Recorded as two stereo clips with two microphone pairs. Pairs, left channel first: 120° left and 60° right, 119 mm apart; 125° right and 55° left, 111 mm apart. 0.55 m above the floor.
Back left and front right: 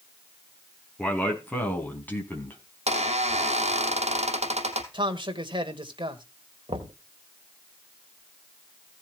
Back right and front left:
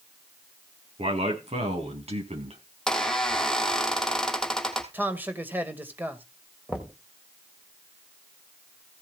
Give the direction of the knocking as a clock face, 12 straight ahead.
1 o'clock.